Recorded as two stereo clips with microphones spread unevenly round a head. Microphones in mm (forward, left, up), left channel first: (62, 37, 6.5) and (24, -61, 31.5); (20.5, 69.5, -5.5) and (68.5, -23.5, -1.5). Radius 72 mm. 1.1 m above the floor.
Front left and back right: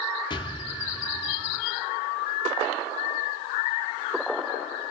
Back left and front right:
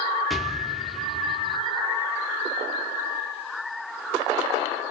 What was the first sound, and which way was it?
An explosion, 25° left.